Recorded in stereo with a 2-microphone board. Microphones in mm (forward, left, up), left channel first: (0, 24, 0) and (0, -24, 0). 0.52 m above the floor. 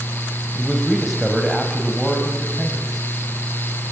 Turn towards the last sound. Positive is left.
turn(degrees=-5)  # may be behind; listen again after turning